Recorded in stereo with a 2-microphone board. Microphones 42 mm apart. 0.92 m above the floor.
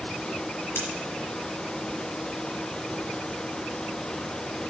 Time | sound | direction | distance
0.8 | scissors | 60° left (ahead or behind) | 5 m